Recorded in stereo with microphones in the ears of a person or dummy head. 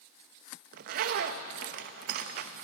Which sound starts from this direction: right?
A zipper, at 0.7 s.